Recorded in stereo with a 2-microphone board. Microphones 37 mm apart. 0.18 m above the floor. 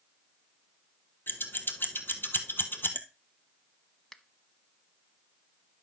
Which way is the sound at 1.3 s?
70° left (ahead or behind).